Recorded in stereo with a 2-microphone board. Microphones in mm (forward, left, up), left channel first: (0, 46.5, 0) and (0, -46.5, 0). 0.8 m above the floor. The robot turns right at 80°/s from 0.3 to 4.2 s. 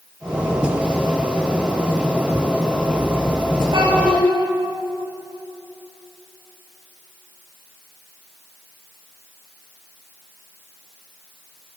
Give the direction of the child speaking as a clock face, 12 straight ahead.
4 o'clock.